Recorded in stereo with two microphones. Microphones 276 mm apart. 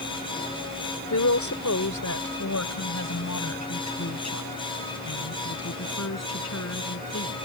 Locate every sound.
1.1 s a woman speaking: 80° left; by 7.3 s 65° left (ahead or behind)